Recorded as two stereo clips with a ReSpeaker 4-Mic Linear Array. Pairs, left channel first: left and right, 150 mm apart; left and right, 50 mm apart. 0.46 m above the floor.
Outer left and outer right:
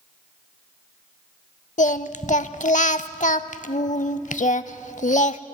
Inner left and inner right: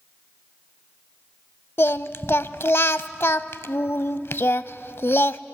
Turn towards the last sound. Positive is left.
turn(degrees=60)  # may be behind; listen again after turning